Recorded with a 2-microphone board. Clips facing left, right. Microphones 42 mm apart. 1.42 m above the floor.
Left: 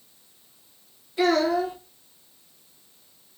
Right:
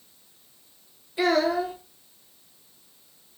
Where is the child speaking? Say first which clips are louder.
Left 1 dB; 5° right (ahead or behind), 1.5 m.